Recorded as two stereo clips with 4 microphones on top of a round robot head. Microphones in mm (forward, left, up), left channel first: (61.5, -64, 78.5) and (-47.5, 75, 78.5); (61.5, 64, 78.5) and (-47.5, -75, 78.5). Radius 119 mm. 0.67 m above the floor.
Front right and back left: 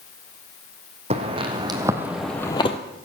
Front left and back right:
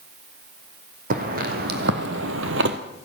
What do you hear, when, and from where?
1.1 s footsteps: 175° right, 2.5 m; by 2.8 s 105° right, 1.2 m